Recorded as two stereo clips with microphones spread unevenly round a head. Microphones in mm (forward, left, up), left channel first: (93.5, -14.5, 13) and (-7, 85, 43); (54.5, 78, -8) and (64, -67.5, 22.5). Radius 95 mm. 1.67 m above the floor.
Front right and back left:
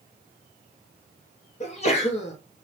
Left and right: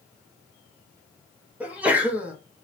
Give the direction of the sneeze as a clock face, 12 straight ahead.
1 o'clock.